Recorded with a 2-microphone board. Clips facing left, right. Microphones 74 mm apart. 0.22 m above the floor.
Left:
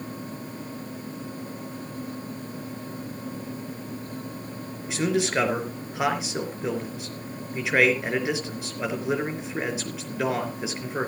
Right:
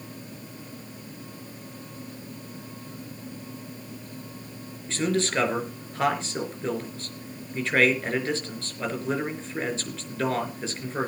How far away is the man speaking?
About 4 m.